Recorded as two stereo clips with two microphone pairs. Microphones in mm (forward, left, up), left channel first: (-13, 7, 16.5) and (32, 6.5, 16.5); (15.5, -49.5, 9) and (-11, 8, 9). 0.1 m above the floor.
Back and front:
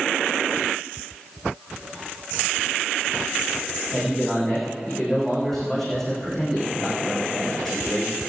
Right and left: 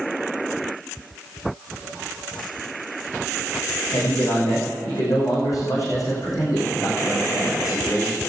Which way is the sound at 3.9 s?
95° right.